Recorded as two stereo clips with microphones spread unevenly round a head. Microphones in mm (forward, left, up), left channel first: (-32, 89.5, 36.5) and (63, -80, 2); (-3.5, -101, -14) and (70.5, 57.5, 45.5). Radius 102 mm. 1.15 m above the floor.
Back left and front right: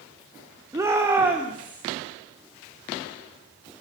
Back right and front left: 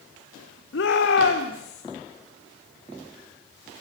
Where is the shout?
135° right, 2.5 m; by 1.8 s 145° right, 3 m.